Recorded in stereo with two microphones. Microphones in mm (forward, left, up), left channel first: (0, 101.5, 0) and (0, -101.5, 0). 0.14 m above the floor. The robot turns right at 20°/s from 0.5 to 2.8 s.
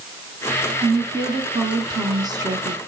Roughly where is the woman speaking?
Centre.